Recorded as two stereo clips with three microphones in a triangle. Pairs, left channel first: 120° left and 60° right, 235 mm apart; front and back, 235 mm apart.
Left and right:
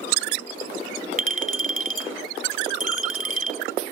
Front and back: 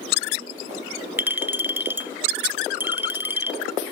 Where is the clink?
100° right, 1.0 m.